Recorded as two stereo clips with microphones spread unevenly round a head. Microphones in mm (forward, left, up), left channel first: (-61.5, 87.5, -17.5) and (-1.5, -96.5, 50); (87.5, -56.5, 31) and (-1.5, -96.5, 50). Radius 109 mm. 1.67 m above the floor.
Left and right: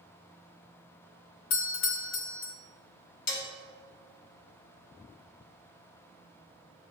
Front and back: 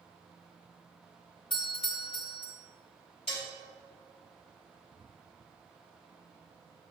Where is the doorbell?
80° left, 0.8 m.